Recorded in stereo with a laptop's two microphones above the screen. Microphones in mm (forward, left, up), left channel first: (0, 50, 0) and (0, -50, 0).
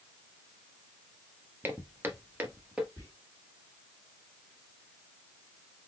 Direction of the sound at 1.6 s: 25° right (ahead or behind).